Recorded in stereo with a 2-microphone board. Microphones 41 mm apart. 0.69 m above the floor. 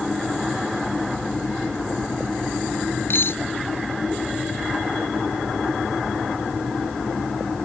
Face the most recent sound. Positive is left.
turn(degrees=65)  # may be behind; listen again after turning